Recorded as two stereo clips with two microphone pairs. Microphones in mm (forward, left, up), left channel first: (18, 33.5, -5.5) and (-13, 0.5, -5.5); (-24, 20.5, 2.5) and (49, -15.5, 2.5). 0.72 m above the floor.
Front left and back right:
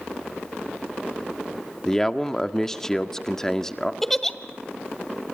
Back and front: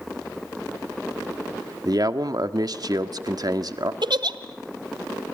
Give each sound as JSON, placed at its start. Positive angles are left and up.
{"t": 1.9, "sound": "a man speaking", "azimuth_deg": -30, "distance_m": 1.7}
{"t": 4.0, "sound": "a giggle", "azimuth_deg": -40, "distance_m": 1.7}